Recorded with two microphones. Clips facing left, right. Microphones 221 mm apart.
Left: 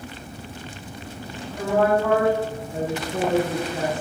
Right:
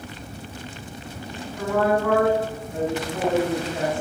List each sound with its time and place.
1.6 s a woman speaking: 75° left (ahead or behind), 2.5 m